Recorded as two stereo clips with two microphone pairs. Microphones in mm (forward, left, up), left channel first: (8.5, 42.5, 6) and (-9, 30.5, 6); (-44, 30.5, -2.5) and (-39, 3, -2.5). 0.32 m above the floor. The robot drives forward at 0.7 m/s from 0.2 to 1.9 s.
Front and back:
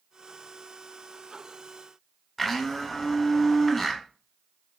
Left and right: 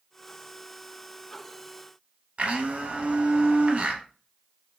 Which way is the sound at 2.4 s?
50° right.